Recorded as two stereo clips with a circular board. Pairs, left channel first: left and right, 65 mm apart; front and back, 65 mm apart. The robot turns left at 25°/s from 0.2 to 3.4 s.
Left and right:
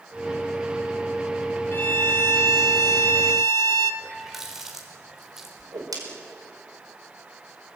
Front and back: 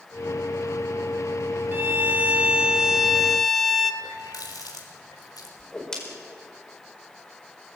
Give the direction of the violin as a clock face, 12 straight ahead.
8 o'clock.